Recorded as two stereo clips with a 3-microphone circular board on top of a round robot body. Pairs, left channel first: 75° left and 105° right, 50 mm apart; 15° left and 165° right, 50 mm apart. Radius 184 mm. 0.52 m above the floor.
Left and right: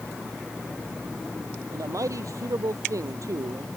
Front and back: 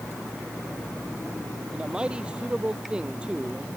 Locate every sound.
1.7 s a man speaking: 90° right